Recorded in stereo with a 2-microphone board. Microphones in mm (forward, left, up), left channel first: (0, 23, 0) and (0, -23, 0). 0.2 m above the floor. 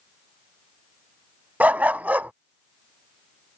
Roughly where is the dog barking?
Right.